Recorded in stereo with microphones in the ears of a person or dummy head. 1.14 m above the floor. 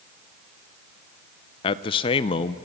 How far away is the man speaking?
About 0.6 m.